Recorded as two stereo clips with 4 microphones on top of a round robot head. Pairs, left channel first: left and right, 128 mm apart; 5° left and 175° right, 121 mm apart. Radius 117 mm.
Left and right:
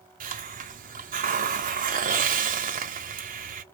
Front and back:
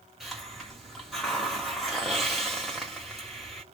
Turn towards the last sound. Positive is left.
turn(degrees=-85)